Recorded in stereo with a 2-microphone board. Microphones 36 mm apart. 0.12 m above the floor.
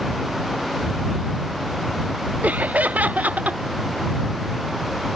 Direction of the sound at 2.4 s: 50° right (ahead or behind).